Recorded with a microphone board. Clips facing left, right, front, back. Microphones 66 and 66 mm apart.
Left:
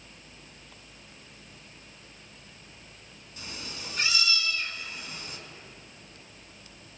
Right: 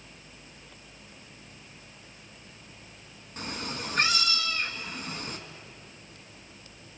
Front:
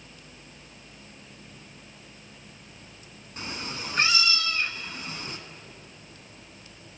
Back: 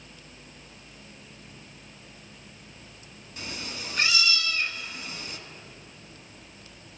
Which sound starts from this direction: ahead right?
A cat meowing, at 3.4 s.